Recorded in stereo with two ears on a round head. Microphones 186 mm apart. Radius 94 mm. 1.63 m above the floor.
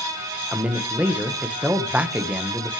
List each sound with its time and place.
0.5 s a man speaking: 5° right (ahead or behind), 1.5 m